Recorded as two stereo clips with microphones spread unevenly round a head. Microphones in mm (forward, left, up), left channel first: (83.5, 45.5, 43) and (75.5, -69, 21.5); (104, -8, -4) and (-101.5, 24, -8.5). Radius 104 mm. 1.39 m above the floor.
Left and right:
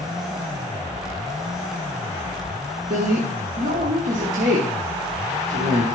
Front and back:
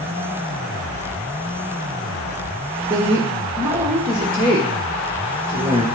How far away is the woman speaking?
About 1.0 m.